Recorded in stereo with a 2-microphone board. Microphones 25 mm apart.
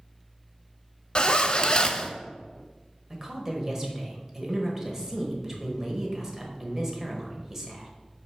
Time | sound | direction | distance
1.1 | a zipper | 35° left (ahead or behind) | 0.5 m
3.1 | a woman speaking | 25° right (ahead or behind) | 1.2 m